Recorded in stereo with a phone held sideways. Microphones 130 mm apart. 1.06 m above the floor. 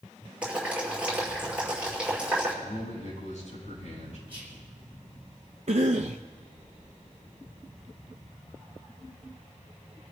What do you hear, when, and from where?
0.4 s boiling: 10° right (ahead or behind), 6.5 m
2.6 s a man speaking: 65° left (ahead or behind), 9 m
4.3 s whispering: 15° right (ahead or behind), 4.5 m
5.7 s a cough: 55° right (ahead or behind), 0.6 m